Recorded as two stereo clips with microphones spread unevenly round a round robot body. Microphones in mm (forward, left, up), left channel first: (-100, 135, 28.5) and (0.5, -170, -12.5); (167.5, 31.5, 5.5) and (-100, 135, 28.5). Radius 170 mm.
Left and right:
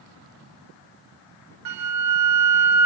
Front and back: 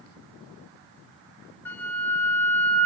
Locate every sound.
1.6 s a flute: 105° right, 1.0 m